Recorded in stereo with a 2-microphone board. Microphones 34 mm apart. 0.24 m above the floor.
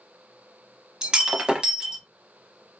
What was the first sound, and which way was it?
Breaking glass, 25° right (ahead or behind).